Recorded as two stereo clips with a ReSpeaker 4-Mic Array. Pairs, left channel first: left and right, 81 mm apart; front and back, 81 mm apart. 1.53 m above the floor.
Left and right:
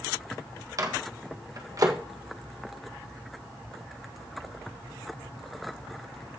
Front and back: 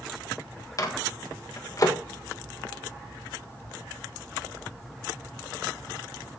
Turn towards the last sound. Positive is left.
turn(degrees=-45)